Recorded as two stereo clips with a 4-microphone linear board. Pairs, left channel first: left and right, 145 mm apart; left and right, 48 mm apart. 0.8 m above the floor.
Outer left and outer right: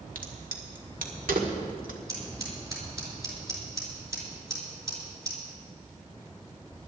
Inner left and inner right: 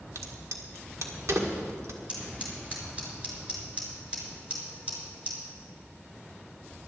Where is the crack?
75° right (ahead or behind), 1.7 m.